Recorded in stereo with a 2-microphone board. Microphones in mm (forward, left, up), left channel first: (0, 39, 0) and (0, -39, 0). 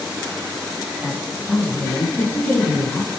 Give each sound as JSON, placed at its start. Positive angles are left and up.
{"t": 1.0, "sound": "a woman speaking", "side_deg": 20, "distance_m": 1.3}